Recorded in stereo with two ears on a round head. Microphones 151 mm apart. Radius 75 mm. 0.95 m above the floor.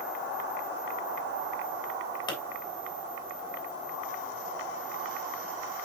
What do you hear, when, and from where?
2.3 s a pop: 25° left (ahead or behind), 3 m